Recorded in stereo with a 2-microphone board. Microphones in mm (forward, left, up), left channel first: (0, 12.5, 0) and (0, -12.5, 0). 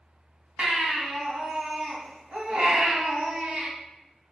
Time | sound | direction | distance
0.6 | a baby crying | 65° right (ahead or behind) | 2 m